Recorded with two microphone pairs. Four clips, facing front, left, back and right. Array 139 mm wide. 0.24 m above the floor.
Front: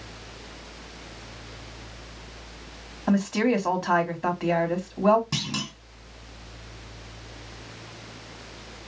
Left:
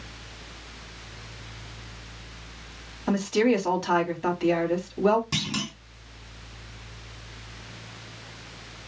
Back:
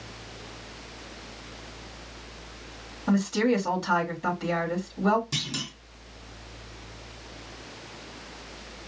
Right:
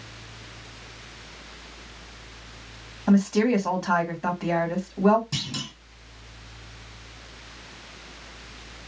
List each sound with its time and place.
3.1 s a woman speaking: 15° right, 1.8 m
5.3 s a clunk: 20° left, 1.9 m